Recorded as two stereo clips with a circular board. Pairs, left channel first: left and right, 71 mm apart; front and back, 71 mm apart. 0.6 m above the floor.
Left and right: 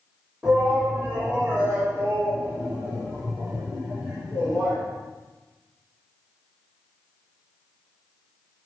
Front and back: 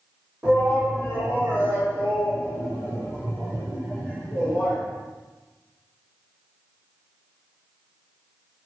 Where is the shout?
145° right, 1.5 m; by 4.8 s 115° right, 3.5 m.